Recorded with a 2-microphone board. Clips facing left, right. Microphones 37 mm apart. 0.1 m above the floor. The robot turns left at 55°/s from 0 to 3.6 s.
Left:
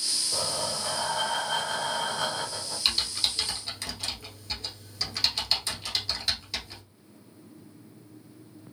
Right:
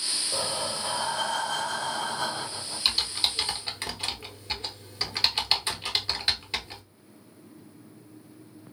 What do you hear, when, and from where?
0.3 s breathing: 140° right, 3 m; by 2.8 s 80° left, 3 m
2.9 s typing on a keyboard: centre (ahead or behind), 1.1 m; by 6.8 s 30° right (ahead or behind), 1.1 m